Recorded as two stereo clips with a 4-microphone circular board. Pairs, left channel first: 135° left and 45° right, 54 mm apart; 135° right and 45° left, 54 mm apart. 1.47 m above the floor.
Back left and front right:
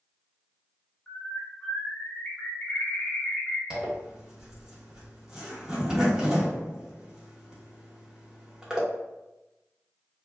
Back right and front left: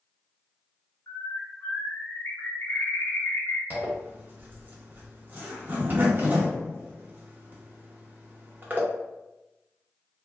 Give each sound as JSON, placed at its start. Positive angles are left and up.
{"t": 1.1, "sound": "a bird", "azimuth_deg": -155, "distance_m": 1.1}
{"t": 3.7, "sound": "a zipper", "azimuth_deg": 25, "distance_m": 0.9}